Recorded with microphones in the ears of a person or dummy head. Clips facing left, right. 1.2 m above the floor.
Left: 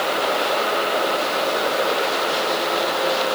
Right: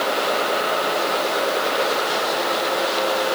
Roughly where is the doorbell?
No doorbell in this recording.